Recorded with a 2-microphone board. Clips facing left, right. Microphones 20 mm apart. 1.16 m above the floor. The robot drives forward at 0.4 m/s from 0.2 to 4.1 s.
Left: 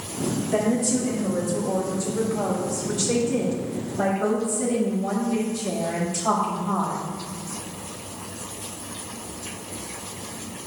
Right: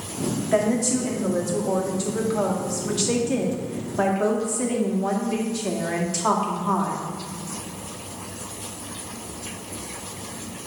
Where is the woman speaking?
60° right (ahead or behind), 2.5 m; by 7.1 s 80° right, 2 m.